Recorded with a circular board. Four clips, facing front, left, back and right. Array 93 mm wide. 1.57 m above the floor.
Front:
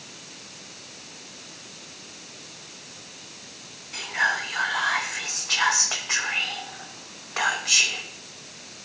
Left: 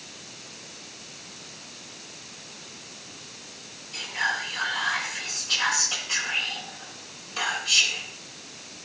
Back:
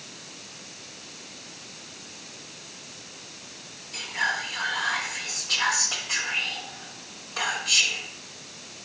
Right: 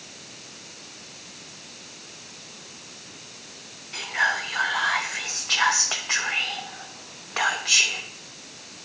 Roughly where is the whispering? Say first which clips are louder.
Right 4 dB, front 3 dB; ahead right.